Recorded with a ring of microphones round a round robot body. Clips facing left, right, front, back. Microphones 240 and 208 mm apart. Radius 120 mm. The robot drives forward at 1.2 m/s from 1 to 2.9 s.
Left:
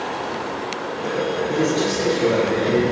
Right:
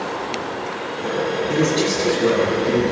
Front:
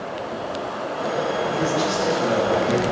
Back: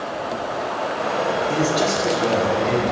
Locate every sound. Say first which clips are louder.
1.5 s a man speaking: right 2 dB, back 2 dB; 160° right, 5 m; by 2.9 s 165° right, 6.5 m